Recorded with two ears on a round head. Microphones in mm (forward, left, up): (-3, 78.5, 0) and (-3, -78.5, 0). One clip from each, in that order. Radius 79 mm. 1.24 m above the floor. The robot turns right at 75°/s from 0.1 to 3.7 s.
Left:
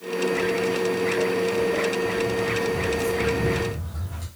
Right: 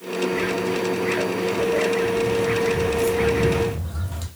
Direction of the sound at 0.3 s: 15° left (ahead or behind).